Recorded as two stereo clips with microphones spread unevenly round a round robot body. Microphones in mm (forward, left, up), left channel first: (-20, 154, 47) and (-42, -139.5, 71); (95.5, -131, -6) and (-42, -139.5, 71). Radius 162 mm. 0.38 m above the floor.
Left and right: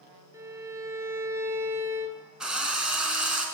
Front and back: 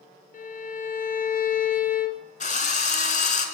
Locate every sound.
0.3 s a violin: 15° right, 2.5 m
2.4 s a drill: 5° right, 5 m